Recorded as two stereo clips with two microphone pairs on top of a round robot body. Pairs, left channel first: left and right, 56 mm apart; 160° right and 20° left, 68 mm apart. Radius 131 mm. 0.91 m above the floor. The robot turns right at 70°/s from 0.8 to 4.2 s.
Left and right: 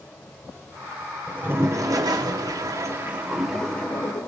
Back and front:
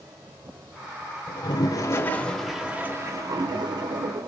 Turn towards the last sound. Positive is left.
turn(degrees=50)